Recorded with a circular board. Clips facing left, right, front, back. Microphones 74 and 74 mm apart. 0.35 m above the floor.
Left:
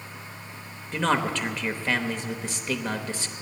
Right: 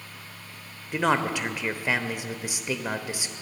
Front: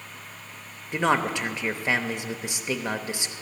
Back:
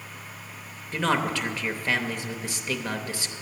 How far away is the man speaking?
About 0.8 m.